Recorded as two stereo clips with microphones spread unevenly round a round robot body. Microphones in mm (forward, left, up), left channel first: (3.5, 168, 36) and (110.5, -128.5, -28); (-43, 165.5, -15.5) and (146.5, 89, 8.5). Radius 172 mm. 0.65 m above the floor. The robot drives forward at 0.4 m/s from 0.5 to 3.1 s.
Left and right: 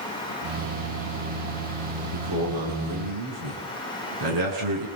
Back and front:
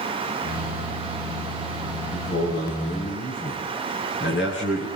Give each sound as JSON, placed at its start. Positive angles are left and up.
{"t": 2.1, "sound": "a man speaking", "azimuth_deg": -105, "distance_m": 7.5}